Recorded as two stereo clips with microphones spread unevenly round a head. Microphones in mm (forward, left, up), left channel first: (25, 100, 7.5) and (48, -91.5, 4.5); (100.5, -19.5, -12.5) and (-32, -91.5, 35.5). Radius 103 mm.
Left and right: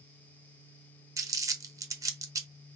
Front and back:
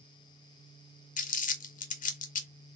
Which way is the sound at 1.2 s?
10° right.